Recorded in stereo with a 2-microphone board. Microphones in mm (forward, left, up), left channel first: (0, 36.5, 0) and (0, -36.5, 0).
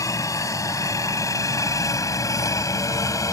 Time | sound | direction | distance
0.0 | a helicopter | 45° left (ahead or behind) | ?